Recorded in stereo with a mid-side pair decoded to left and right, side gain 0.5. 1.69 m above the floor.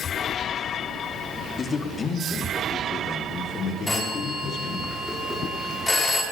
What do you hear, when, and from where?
1.6 s a man speaking: 35° left, 3 m; by 4.9 s 60° left, 7.5 m
3.9 s a phone ringing: 15° left, 9.5 m